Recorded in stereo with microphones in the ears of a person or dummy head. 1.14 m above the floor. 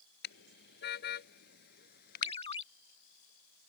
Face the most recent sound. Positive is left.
turn(degrees=30)  # may be behind; listen again after turning